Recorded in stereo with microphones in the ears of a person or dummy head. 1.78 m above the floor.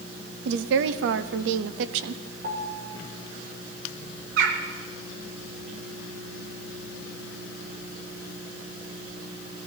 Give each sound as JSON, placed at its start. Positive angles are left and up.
{"t": 0.5, "sound": "a woman speaking", "side_deg": -65, "distance_m": 0.7}
{"t": 2.4, "sound": "a piano", "side_deg": -45, "distance_m": 2.0}
{"t": 4.4, "sound": "a bird", "side_deg": -65, "distance_m": 1.3}